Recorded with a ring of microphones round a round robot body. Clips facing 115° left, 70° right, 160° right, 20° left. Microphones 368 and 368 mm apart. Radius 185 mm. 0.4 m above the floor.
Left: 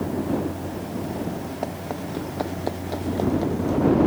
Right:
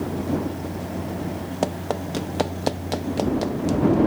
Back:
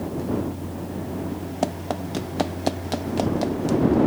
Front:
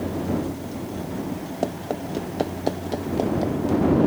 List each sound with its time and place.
1.6 s running footsteps: 95° right; by 4.0 s 105° right